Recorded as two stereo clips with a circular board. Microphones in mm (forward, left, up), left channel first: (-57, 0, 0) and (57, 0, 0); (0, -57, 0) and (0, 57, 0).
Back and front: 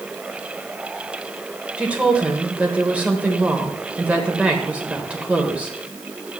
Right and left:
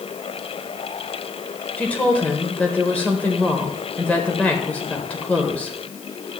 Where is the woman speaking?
50° right, 1.1 m.